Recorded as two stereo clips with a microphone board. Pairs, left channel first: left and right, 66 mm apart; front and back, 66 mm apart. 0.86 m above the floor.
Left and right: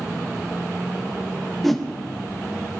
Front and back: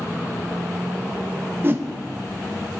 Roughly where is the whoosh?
Behind.